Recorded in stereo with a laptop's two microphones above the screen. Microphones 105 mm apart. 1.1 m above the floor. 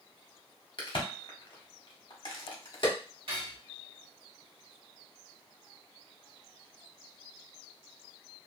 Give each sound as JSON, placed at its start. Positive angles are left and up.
{"t": 0.8, "sound": "a crack", "side_deg": 50, "distance_m": 1.0}
{"t": 3.3, "sound": "cutlery clinking", "side_deg": -60, "distance_m": 1.2}